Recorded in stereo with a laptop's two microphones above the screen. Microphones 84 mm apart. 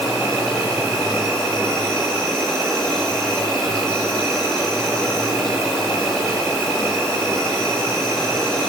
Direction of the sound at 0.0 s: 5° left (ahead or behind).